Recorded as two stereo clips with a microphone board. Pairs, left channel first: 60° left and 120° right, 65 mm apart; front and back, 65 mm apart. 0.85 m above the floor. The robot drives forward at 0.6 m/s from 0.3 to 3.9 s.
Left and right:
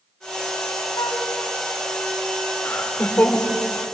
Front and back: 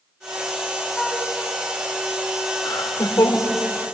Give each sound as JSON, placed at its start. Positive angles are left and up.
{"t": 0.9, "sound": "a flute", "azimuth_deg": 85, "distance_m": 5.5}
{"t": 2.6, "sound": "laughter", "azimuth_deg": 5, "distance_m": 3.5}